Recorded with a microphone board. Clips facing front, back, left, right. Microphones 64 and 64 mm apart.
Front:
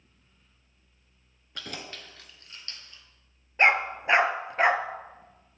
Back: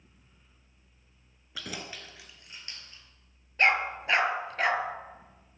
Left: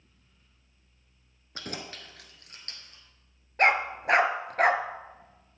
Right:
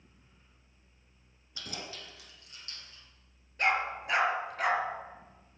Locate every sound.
1.6 s keys jangling: 95° left, 1.2 m; by 3.0 s 115° left, 1.9 m
3.6 s a dog barking: 65° left, 0.6 m